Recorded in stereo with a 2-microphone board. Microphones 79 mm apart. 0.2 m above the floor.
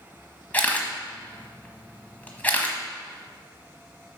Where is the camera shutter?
20° left (ahead or behind), 1.1 m.